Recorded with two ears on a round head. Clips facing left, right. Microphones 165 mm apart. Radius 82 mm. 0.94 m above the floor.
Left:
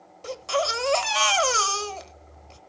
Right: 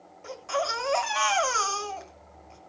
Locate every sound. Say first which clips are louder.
0.2 s a baby crying: left 4 dB; 50° left (ahead or behind), 1.2 m